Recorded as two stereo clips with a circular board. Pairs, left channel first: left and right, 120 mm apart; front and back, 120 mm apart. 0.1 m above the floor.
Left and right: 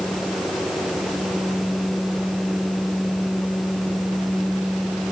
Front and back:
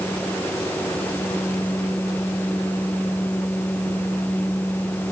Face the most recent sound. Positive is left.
No sound to turn to.